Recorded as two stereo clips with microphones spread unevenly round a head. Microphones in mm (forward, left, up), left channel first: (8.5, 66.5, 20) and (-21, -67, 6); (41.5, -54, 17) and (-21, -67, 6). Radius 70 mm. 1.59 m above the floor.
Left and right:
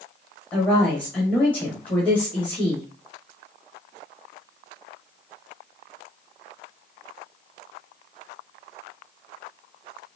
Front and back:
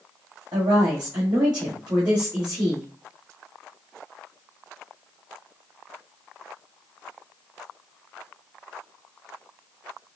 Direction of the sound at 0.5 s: 155° left.